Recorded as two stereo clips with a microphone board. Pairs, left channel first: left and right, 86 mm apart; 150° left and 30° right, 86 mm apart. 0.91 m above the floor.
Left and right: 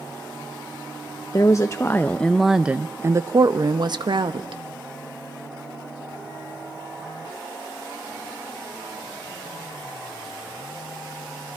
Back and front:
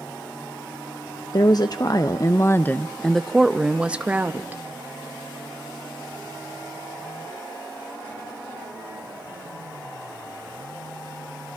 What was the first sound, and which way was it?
A woman speaking, 130° left.